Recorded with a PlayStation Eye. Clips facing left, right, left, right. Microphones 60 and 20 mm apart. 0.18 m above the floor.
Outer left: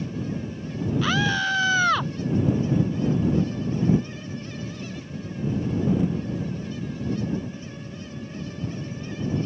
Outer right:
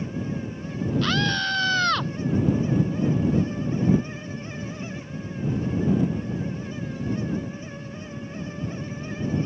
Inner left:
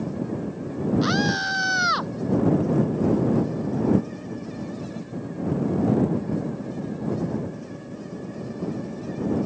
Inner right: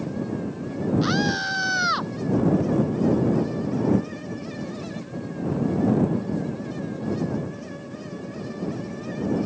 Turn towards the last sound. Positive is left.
turn(degrees=10)  # may be behind; listen again after turning